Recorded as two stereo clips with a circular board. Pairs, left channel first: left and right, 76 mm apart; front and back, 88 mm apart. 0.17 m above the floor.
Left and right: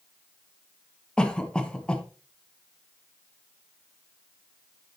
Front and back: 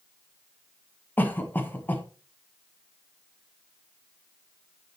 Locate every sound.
1.2 s a cough: 25° left, 1.3 m